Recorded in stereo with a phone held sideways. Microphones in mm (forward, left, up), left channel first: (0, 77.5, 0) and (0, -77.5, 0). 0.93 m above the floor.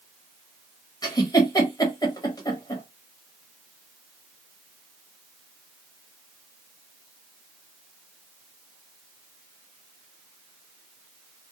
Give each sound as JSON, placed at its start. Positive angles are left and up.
{"t": 1.0, "sound": "a giggle", "side_deg": 25, "distance_m": 1.1}